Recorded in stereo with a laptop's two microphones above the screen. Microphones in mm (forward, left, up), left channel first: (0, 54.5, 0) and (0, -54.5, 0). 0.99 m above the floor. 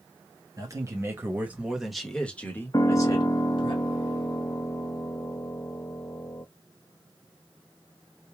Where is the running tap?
No running tap in this recording.